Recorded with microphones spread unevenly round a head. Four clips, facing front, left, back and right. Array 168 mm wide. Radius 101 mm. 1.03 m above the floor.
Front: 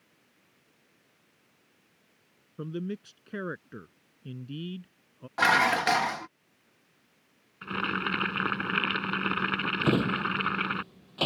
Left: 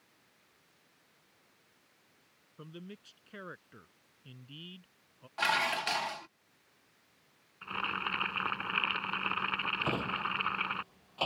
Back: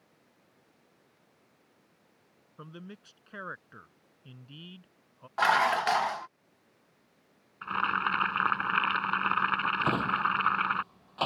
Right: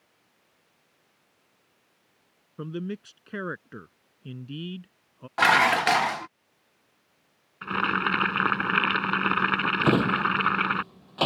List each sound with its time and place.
2.6 s a man speaking: 70° right
5.4 s dishes clattering: 55° right
7.6 s boiling: 85° right
9.8 s a drawer: 90° right